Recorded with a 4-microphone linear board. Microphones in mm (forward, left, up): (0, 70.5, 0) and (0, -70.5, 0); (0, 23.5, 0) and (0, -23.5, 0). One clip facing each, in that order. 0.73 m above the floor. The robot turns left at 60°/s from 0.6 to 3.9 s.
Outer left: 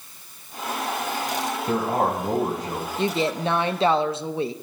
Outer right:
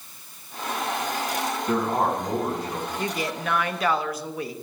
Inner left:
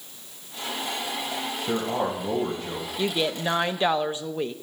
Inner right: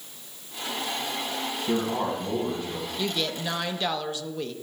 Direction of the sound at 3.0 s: 25° left (ahead or behind).